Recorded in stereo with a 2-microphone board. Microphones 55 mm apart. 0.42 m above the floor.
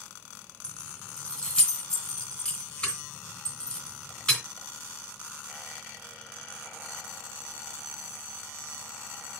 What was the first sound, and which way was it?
Keys jangling, 20° left (ahead or behind).